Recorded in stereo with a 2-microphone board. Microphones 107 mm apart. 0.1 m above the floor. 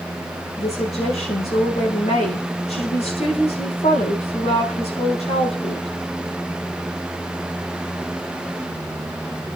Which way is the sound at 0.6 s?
75° left (ahead or behind).